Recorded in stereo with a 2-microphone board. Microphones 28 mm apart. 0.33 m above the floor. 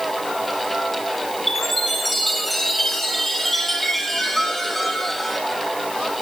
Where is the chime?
5° left (ahead or behind), 3 m.